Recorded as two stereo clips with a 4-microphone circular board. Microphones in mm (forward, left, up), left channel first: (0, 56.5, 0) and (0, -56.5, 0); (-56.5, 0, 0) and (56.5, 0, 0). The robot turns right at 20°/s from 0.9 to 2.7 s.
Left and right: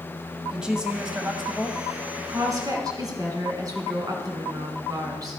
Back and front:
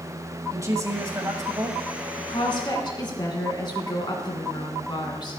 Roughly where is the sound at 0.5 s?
Ahead.